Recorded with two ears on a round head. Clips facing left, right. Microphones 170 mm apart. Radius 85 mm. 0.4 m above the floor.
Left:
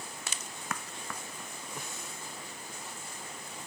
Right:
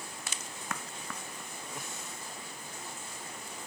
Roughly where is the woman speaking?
No woman speaking in this recording.